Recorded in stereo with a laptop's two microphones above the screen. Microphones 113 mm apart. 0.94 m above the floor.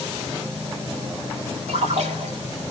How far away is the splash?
About 4 m.